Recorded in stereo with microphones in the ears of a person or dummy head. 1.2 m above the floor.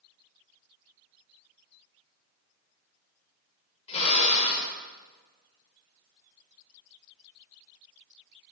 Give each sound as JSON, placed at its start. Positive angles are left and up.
{"t": 3.9, "sound": "a drill", "side_deg": 40, "distance_m": 3.0}